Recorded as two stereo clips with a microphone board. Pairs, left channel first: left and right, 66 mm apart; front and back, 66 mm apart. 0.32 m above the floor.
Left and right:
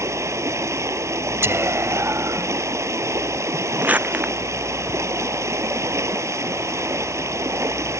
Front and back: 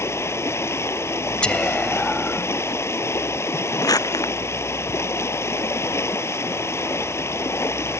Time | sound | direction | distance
0.0 | running water | 45° right | ?
1.4 | whispering | 70° right | ?
3.8 | crumpling | 25° right | ?